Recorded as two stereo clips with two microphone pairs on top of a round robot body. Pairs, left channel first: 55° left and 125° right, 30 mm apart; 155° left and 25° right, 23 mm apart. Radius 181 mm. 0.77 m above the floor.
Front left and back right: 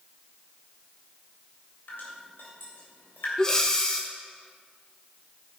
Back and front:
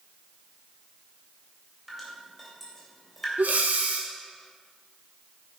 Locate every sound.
1.9 s dripping: 65° left, 3 m
3.4 s breathing: 20° right, 0.9 m